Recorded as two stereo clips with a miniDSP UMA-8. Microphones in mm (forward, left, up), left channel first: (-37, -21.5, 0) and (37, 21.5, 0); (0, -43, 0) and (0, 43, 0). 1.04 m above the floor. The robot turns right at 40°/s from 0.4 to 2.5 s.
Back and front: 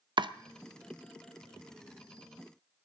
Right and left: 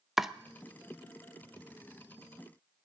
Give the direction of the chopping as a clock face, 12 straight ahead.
12 o'clock.